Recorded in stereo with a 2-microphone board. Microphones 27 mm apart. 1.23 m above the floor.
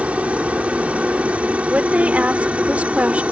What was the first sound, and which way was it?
A helicopter, 55° right (ahead or behind).